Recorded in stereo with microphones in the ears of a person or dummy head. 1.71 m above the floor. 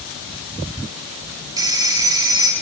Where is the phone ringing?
20° right (ahead or behind), 3 m.